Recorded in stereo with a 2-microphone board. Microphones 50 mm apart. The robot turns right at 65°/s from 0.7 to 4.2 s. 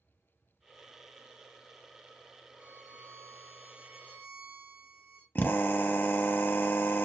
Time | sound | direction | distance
2.6 | a violin | 150° right | 3 m
5.3 | a drill | 45° left (ahead or behind) | 0.8 m